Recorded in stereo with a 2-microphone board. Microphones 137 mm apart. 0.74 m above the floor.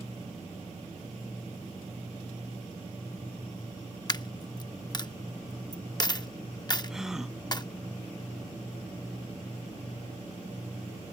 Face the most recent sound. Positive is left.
turn(degrees=-5)  # may be behind; listen again after turning